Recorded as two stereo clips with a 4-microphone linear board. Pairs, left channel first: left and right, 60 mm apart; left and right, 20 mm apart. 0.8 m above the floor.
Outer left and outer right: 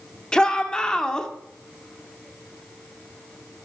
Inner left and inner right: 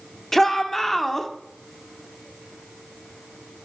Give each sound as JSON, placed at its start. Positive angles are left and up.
{"t": 0.3, "sound": "a shout", "side_deg": 15, "distance_m": 2.0}